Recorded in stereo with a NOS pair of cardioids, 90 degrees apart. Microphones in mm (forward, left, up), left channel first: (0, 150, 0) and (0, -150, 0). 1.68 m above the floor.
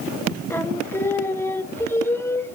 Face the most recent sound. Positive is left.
turn(degrees=5)